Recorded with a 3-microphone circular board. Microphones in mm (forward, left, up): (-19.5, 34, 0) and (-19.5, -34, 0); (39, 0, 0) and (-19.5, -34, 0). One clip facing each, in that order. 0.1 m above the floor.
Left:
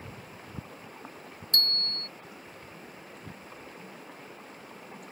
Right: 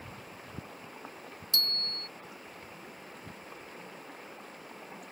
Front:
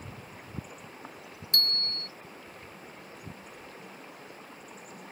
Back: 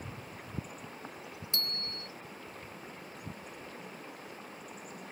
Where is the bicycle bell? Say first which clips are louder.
Left 4 dB, front 8 dB; 55° left.